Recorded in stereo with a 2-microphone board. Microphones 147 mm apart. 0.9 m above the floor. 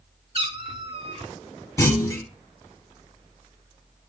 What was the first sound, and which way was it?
A cat meowing, 40° right (ahead or behind).